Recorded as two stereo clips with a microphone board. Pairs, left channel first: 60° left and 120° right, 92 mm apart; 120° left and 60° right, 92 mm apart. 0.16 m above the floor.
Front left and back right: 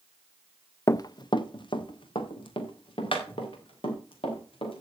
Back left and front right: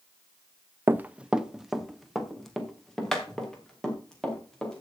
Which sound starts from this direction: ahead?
Running footsteps, at 0.9 s.